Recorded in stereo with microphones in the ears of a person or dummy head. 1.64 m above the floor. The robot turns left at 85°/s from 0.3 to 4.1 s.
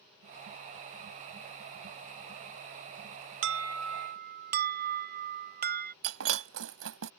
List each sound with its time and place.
3.4 s an alarm: 70° right; by 5.9 s 130° right
6.0 s breaking glass: 70° right (ahead or behind)